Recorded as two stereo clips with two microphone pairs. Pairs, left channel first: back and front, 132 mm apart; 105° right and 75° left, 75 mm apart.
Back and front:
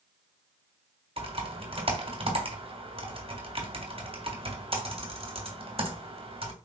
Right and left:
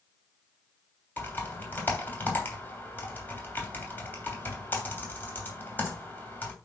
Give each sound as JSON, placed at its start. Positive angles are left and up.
{"t": 1.2, "sound": "typing on a keyboard", "azimuth_deg": -45, "distance_m": 2.5}